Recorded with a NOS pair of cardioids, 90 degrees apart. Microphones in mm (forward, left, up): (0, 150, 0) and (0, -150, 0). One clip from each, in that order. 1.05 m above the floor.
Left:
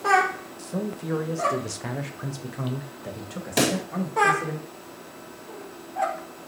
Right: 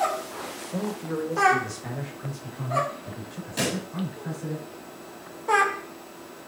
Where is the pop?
70° left, 1.9 m.